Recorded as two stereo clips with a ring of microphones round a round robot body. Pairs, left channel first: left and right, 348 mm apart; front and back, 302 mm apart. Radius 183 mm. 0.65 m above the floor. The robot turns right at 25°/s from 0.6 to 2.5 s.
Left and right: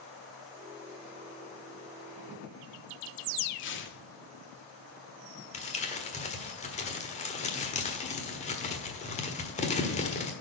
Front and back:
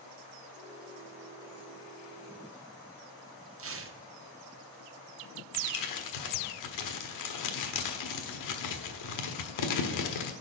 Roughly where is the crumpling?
Ahead.